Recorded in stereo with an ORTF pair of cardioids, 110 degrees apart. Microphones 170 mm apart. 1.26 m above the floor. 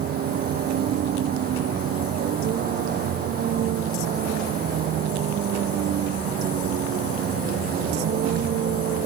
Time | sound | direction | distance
0.0 | a vehicle | 60° right | ?